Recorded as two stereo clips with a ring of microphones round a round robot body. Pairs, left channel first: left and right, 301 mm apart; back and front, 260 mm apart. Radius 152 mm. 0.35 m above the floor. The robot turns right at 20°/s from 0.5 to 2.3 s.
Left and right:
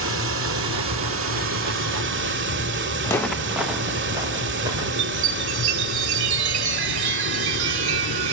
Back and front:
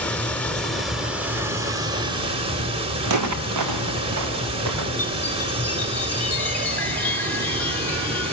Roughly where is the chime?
Right.